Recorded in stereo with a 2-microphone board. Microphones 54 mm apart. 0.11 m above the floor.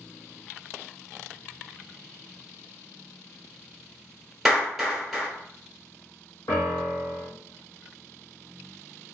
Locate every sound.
4.5 s a clap: centre (ahead or behind), 1.7 m
6.5 s a piano: 75° left (ahead or behind), 1.9 m